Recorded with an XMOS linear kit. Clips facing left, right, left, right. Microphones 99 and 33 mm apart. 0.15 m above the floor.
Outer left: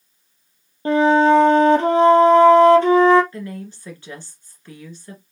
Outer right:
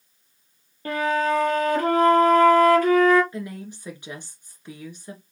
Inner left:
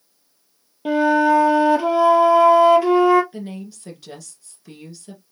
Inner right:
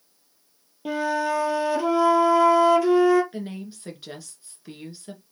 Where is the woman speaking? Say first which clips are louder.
Outer left 2 dB, inner left 1 dB; 15° right (ahead or behind), 2 m.